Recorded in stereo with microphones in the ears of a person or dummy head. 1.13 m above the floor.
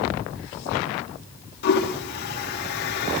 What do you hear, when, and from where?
1.6 s a toilet flushing: 60° left (ahead or behind), 2.5 m